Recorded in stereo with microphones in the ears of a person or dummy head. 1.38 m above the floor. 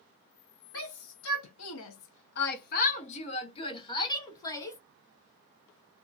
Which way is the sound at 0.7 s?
65° left (ahead or behind).